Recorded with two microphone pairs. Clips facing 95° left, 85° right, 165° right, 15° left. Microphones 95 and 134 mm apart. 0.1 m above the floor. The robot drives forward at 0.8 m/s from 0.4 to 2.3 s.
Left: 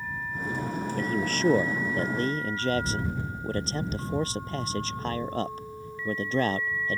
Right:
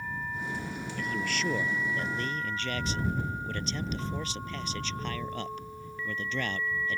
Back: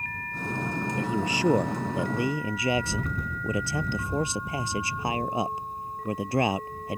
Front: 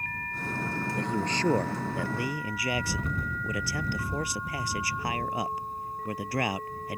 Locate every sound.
1.0 s a man speaking: 105° left; by 7.0 s 135° left